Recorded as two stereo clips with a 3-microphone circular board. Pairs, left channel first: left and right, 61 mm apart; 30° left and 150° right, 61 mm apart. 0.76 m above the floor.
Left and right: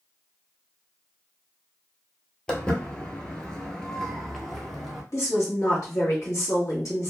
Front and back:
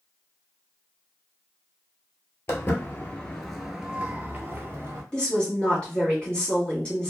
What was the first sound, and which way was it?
Footsteps, 25° left.